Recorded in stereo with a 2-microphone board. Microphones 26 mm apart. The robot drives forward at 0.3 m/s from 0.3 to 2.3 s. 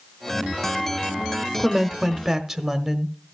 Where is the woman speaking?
15° right (ahead or behind), 0.8 m.